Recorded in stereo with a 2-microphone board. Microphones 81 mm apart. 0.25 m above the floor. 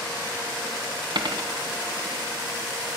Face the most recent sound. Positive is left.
turn(degrees=-60)  # may be behind; listen again after turning